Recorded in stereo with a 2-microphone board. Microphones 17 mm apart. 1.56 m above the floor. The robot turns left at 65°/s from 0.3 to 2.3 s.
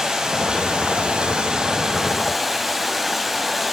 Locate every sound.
0.0 s running water: 40° right, 5 m; by 3.7 s 170° right, 5 m